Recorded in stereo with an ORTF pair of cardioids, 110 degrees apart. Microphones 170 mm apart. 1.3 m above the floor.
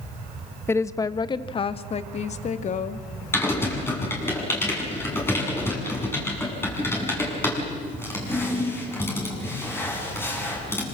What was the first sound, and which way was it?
A woman speaking, 15° left.